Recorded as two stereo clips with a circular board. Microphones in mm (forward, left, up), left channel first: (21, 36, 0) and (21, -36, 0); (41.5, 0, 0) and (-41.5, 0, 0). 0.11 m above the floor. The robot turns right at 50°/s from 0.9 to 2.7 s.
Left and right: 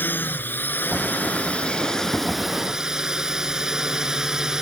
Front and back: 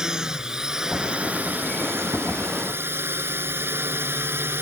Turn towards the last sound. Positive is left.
turn(degrees=-165)